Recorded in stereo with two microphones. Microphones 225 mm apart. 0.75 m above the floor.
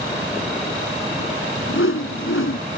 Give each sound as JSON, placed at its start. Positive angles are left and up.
{"t": 1.7, "sound": "a whoosh", "side_deg": 85}